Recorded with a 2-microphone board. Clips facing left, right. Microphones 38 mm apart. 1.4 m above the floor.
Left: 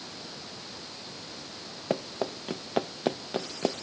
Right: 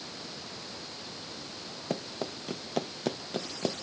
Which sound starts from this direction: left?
Running footsteps, at 1.9 s.